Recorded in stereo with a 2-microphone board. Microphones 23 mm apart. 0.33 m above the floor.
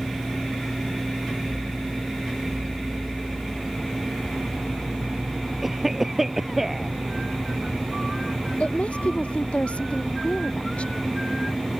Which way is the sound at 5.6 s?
10° right (ahead or behind).